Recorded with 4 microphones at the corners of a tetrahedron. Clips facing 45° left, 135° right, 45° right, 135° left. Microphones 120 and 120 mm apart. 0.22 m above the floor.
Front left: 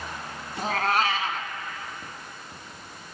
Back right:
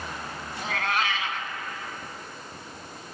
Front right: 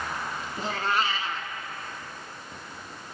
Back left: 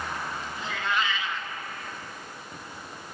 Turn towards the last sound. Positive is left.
turn(degrees=0)